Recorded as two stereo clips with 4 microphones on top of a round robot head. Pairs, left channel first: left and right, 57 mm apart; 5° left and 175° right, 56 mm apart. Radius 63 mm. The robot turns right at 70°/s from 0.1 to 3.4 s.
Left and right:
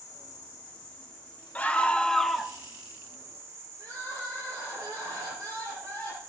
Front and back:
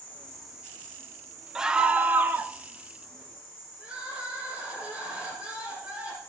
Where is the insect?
70° left, 4 m; by 6.3 s 55° right, 4 m.